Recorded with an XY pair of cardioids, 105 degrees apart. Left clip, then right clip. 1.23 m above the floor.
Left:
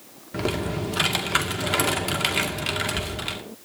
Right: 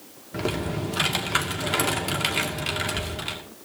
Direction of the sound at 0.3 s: 10° left.